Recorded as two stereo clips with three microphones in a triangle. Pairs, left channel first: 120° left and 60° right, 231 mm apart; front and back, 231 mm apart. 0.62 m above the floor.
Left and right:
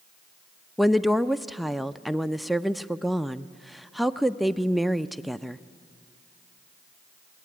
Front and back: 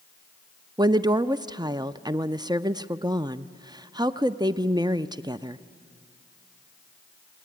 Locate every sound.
0.8 s a woman speaking: 150° right, 0.5 m